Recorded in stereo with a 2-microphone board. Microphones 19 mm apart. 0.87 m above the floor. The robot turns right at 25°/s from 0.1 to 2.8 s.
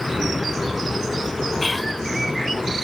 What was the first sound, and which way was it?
Whispering, 5° left (ahead or behind).